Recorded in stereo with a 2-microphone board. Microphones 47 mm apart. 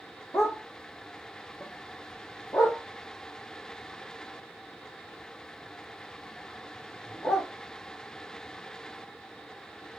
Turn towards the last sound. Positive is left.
turn(degrees=75)  # may be behind; listen again after turning